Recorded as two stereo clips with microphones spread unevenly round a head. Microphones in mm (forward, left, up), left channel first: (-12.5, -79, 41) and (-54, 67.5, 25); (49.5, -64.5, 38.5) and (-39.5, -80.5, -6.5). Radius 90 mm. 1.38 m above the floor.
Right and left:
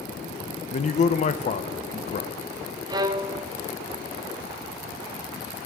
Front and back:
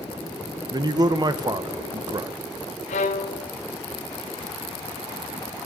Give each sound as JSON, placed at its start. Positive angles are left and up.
{"t": 0.7, "sound": "a man speaking", "azimuth_deg": -115, "distance_m": 0.7}
{"t": 2.9, "sound": "a violin", "azimuth_deg": 40, "distance_m": 0.5}